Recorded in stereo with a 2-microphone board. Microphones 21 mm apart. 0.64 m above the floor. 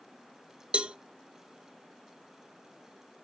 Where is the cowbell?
55° right (ahead or behind), 0.8 m.